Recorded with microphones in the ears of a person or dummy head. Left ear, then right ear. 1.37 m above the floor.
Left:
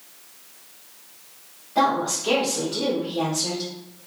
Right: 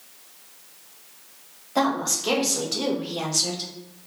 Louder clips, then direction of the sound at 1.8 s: Left 2 dB; 85° right.